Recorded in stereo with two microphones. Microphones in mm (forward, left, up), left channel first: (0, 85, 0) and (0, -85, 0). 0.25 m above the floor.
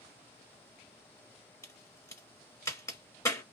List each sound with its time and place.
1.6 s a crack: 20° left (ahead or behind), 1.2 m